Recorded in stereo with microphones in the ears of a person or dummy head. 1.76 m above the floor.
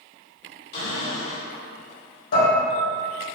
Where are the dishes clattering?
60° left (ahead or behind), 1.6 m.